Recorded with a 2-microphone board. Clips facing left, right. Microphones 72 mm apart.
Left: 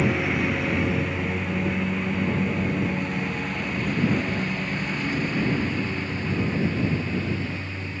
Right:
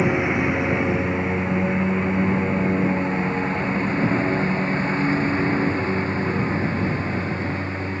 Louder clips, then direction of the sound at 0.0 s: Right 3 dB; 20° right (ahead or behind).